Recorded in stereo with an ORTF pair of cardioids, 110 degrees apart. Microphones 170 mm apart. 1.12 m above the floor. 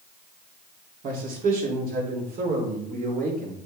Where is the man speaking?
55° right, 3 m.